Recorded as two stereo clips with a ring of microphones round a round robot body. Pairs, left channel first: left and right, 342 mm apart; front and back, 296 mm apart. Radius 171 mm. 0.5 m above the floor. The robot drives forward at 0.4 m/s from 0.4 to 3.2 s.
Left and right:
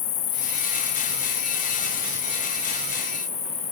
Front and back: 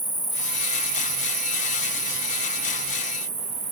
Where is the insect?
115° left, 0.8 m; by 3.7 s 160° left, 1.5 m.